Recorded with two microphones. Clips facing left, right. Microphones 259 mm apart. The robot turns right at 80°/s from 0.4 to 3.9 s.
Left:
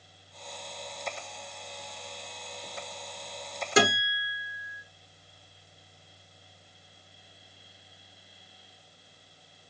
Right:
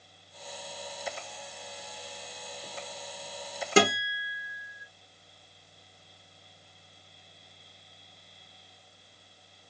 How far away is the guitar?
About 2.5 m.